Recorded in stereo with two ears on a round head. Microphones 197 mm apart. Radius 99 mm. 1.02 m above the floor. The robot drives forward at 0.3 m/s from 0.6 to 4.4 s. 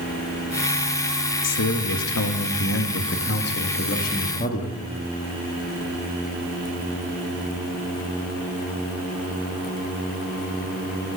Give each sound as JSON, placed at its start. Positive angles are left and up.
{"t": 1.4, "sound": "a man speaking", "side_deg": 80, "distance_m": 1.0}